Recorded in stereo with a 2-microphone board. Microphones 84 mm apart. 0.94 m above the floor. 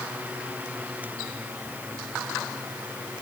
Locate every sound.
Only background noise.